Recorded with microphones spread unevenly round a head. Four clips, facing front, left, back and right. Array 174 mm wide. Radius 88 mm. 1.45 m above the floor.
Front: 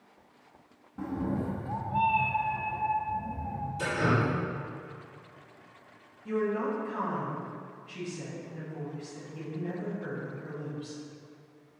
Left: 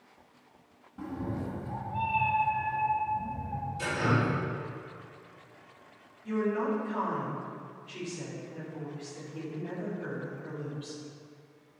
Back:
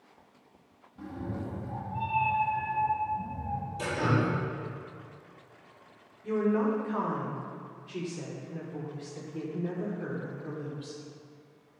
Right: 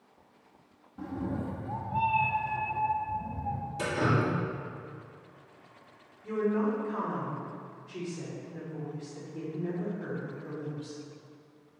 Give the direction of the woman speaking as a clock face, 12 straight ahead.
5 o'clock.